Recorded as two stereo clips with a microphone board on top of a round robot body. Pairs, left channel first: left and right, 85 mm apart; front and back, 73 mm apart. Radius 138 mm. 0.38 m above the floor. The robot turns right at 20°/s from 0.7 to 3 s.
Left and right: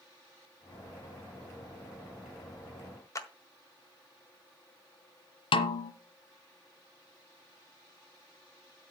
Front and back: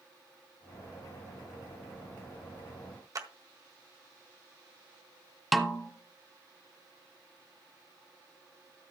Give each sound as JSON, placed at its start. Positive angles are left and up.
{"t": 3.1, "sound": "a clap", "azimuth_deg": 140, "distance_m": 1.8}
{"t": 5.5, "sound": "a snare drum", "azimuth_deg": 90, "distance_m": 1.2}